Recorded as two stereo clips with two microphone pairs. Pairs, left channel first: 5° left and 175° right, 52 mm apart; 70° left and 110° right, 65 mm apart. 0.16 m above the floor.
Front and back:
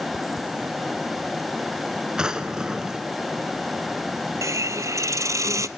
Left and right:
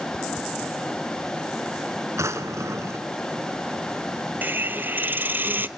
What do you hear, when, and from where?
2.2 s a drawer: 100° right, 1.2 m
4.4 s a hiss: 165° right, 0.6 m